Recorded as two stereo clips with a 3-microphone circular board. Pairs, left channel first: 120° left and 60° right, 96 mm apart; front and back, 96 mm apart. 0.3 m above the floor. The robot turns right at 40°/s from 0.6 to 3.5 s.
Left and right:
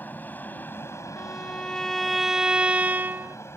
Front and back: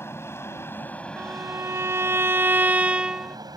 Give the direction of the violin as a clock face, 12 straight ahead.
6 o'clock.